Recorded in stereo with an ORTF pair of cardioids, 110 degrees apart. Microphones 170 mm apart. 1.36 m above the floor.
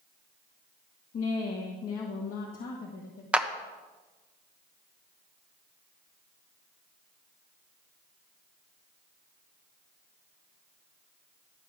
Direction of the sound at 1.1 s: 50° left.